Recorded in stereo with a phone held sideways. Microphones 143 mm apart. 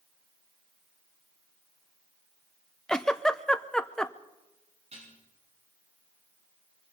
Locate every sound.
2.9 s a giggle: 5° left (ahead or behind), 0.5 m
4.9 s dishes clattering: 55° right (ahead or behind), 8.5 m